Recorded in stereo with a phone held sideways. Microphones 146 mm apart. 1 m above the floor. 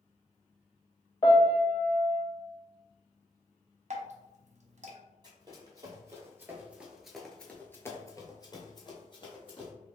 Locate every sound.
1.2 s a piano: 30° left (ahead or behind), 0.8 m
3.9 s dripping: 55° right (ahead or behind), 0.7 m
5.2 s running footsteps: 30° right (ahead or behind), 1.6 m; by 9.7 s 35° left (ahead or behind), 1.9 m